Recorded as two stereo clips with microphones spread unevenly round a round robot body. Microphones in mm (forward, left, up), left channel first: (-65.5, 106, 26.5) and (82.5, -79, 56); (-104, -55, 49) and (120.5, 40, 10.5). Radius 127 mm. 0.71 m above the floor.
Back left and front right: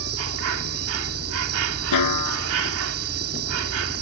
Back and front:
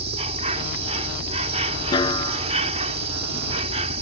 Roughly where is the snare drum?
Behind left.